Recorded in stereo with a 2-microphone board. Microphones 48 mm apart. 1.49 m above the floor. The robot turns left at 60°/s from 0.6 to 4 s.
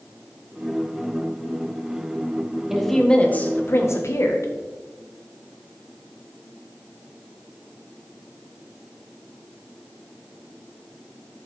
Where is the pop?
No pop in this recording.